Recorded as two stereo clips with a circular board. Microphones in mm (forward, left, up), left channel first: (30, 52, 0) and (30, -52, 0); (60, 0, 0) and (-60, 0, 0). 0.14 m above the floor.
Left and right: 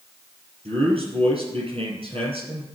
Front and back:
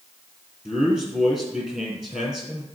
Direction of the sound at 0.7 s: 100° right.